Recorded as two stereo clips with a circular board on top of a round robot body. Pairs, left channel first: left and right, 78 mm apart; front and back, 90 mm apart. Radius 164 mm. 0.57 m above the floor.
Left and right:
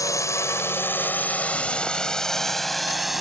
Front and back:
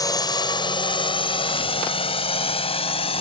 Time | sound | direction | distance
0.0 | a drone | 45° left | ?